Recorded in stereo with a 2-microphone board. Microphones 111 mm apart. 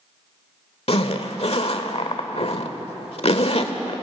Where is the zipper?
65° left (ahead or behind), 1.2 m.